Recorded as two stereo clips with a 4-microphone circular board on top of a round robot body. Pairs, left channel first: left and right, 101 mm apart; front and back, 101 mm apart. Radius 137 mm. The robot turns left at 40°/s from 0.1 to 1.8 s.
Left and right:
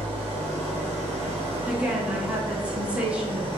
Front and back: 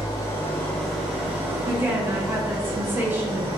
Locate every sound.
0.0 s an engine running: 55° right, 0.9 m; by 3.6 s 125° right, 0.9 m
1.6 s a woman speaking: 145° right, 1.2 m; by 3.5 s 150° right, 1.2 m